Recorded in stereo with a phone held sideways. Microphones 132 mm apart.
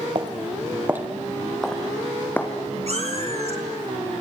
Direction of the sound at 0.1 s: 40° right (ahead or behind).